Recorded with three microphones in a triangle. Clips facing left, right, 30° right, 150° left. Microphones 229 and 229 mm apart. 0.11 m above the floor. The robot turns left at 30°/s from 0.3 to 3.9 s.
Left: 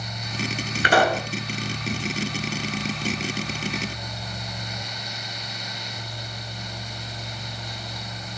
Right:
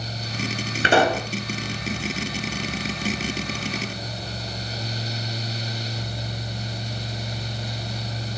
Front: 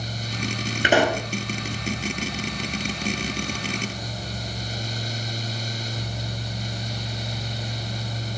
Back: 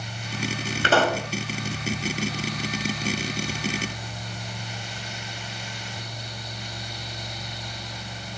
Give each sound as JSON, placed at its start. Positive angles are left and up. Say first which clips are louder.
{"t": 0.8, "sound": "a pop", "louder": "right 2 dB, front 2 dB", "azimuth_deg": -85, "distance_m": 0.9}